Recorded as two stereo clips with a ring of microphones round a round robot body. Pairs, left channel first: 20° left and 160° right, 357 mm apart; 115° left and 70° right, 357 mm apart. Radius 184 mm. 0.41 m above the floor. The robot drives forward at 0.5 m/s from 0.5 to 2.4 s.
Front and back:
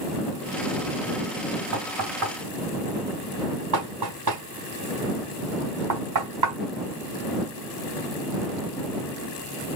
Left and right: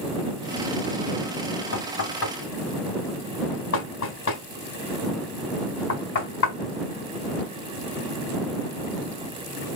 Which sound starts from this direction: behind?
Knocking, at 1.7 s.